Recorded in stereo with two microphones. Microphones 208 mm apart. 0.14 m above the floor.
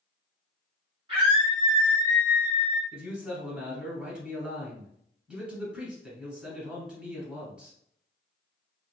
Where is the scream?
25° right (ahead or behind), 1.3 m; by 2.8 s 5° right (ahead or behind), 1.1 m.